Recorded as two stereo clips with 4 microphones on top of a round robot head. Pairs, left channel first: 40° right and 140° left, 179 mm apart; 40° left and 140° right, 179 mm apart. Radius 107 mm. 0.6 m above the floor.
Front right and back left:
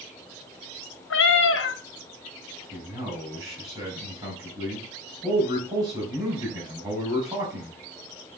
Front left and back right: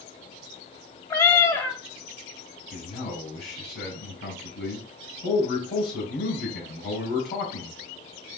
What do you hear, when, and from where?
1.1 s a cat meowing: 40° right, 1.3 m
2.7 s a man speaking: 70° left, 4.5 m